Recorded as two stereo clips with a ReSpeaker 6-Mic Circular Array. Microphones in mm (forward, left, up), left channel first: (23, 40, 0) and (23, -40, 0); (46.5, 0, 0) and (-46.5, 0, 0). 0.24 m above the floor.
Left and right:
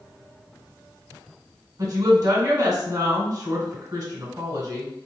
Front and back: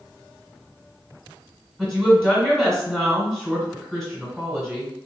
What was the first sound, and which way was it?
A woman speaking, 100° right.